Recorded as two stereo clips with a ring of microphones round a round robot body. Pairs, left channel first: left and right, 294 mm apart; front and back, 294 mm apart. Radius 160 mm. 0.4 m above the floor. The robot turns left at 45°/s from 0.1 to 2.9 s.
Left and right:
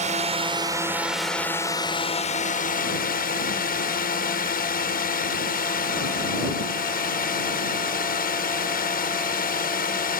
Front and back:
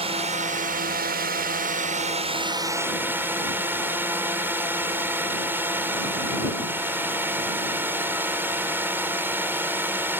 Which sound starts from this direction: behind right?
A drone, at 0.0 s.